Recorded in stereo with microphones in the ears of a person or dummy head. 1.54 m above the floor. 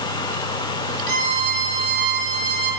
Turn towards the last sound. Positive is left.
turn(degrees=-55)  # may be behind; listen again after turning